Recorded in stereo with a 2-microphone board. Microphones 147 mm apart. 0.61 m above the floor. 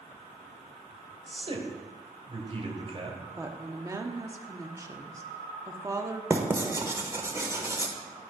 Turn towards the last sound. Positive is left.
turn(degrees=-20)  # may be behind; listen again after turning